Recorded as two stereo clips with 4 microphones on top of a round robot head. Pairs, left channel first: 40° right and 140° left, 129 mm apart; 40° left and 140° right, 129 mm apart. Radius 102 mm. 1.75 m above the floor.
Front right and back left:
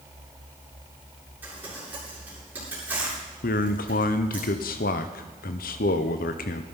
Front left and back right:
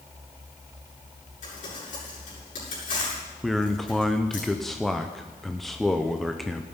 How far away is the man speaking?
About 0.8 m.